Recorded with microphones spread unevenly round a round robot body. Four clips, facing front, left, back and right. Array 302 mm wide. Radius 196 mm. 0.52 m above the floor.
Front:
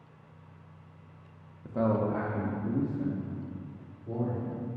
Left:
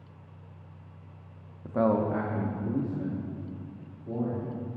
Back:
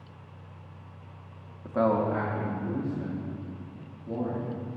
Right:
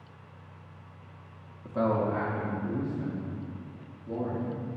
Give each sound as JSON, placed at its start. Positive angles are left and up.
{"t": 1.6, "sound": "a man speaking", "azimuth_deg": 170, "distance_m": 0.9}